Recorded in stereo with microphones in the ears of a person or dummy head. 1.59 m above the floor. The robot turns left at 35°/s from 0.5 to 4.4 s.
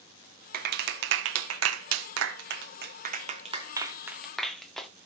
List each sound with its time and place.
0.5 s a clap: 50° right (ahead or behind), 1.3 m; by 4.9 s 5° left (ahead or behind), 1.3 m